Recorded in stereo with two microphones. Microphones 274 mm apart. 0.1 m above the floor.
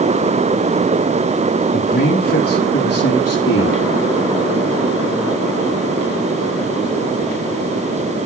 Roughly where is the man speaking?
Left.